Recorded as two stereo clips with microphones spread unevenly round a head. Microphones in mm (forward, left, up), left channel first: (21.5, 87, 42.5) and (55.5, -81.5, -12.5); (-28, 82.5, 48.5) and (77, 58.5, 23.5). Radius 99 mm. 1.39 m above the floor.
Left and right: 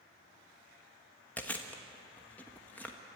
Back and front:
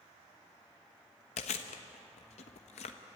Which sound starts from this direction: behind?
Chewing, at 1.4 s.